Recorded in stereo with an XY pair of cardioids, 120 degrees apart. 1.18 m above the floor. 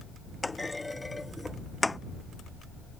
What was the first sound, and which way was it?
A clunk, 10° left.